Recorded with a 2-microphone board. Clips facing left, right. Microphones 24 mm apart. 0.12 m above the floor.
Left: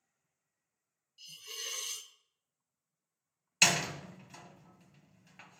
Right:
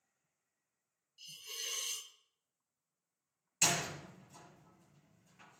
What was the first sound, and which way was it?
A hiss, 5° left (ahead or behind).